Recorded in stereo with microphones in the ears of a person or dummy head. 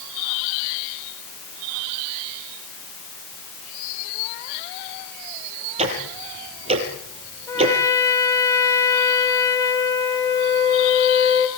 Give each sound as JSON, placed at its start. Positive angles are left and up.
{"t": 5.8, "sound": "ticking", "side_deg": -35, "distance_m": 5.5}
{"t": 7.5, "sound": "a trumpet", "side_deg": 15, "distance_m": 3.0}